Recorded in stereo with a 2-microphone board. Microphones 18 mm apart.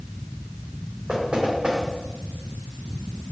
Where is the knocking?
80° right, 2.5 m.